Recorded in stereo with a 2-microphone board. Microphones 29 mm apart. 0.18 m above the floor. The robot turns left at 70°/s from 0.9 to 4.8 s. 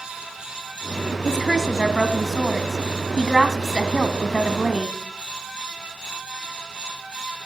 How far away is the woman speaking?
About 1.1 m.